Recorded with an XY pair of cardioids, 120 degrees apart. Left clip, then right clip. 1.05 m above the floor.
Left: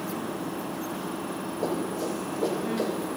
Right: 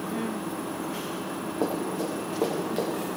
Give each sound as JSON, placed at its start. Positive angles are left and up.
{"t": 1.6, "sound": "running footsteps", "azimuth_deg": -65, "distance_m": 6.5}